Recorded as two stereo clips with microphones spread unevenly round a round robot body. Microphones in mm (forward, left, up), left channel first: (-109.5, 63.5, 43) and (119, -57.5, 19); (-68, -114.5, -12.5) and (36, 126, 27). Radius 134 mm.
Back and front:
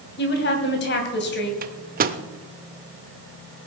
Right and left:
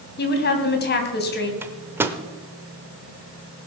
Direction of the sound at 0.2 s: 160° right.